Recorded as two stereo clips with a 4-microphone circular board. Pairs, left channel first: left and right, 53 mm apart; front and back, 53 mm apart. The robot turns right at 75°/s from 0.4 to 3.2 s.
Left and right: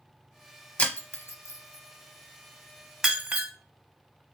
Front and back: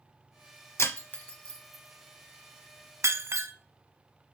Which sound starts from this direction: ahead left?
Breaking glass, at 0.8 s.